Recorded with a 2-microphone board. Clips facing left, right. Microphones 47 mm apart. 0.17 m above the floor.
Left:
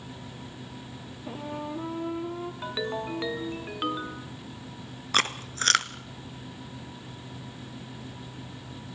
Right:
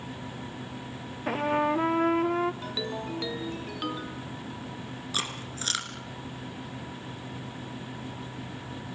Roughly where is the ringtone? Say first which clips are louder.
Left 2 dB; left.